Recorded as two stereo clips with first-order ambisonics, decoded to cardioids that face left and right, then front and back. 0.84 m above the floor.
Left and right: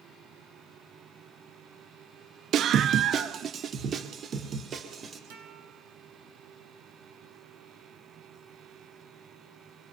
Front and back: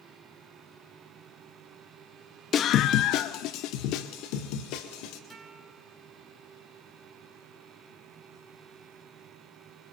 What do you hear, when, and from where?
2.5 s a scream: 45° right, 0.5 m; by 5.2 s 25° right, 3 m
5.3 s a guitar: 100° right, 6.5 m